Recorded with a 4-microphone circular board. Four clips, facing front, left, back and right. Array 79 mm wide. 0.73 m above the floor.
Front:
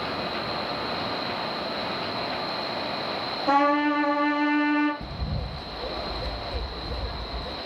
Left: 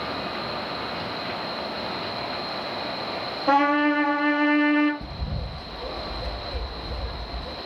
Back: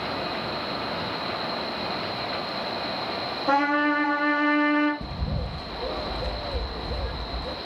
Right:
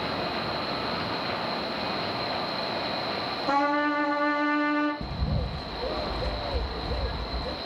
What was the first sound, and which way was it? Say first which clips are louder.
A trumpet: left 5 dB, front 1 dB; 85° left.